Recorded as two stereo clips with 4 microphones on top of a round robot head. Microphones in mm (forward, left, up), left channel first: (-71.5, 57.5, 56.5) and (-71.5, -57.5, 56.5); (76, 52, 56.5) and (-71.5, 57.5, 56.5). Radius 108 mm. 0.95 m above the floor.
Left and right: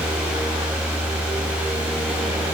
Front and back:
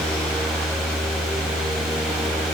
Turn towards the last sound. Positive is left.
No sound to turn to.